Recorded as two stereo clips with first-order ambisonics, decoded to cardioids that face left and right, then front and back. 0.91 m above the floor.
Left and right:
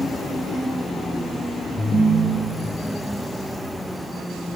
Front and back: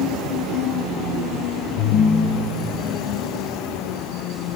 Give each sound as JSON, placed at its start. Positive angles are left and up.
{"t": 1.8, "sound": "a ringtone", "azimuth_deg": 25, "distance_m": 3.0}